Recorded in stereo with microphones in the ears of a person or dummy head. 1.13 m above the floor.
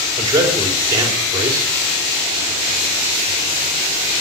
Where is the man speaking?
20° right (ahead or behind), 3.5 m.